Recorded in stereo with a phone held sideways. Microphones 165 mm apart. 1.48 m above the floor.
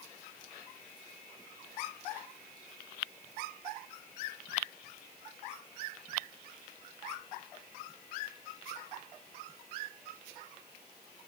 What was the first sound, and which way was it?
Only background noise.